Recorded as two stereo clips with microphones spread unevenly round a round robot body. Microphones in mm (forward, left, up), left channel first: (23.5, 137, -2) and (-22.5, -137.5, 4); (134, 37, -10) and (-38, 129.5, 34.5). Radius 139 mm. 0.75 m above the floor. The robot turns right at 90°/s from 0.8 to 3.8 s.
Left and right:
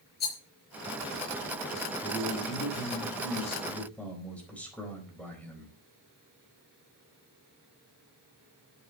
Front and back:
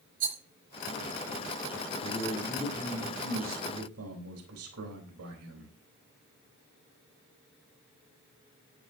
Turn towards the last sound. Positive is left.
turn(degrees=165)